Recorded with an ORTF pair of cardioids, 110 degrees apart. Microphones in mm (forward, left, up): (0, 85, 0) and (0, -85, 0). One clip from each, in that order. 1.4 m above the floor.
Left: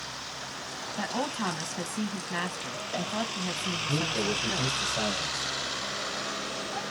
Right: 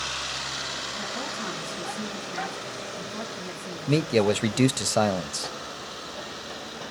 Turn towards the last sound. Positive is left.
turn(degrees=-65)